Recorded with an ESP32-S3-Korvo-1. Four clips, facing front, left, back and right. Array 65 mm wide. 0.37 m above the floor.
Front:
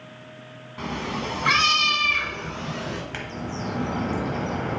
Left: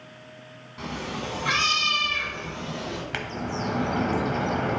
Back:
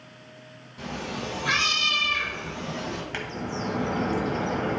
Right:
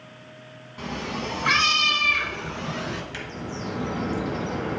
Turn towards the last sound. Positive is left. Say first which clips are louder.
# left 3 dB, even
turn(degrees=90)